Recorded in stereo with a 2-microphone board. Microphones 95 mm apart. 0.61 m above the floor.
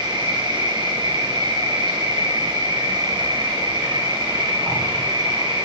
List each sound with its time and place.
0.0 s an insect: 60° right (ahead or behind), 6 m